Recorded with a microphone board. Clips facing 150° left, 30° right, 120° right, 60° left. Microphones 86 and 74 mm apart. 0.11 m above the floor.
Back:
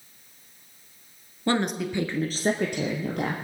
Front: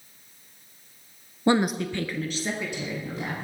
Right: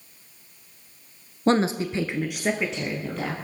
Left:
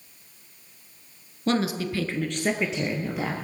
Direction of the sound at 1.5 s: 90° right.